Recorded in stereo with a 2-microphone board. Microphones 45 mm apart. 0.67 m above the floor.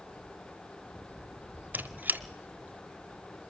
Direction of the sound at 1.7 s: 40° right (ahead or behind).